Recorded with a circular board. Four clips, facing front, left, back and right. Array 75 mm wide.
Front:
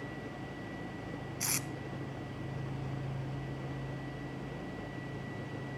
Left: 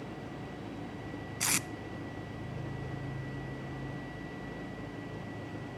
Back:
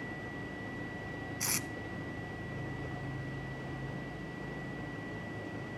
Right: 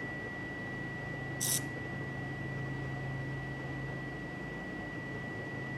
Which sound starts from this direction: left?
Tape being pulled, at 1.4 s.